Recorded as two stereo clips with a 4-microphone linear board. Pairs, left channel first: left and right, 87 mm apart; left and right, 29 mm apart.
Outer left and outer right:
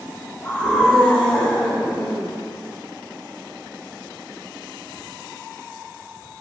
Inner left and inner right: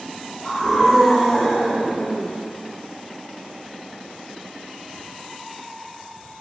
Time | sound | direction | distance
0.4 | a scream | 20° left (ahead or behind) | 8 m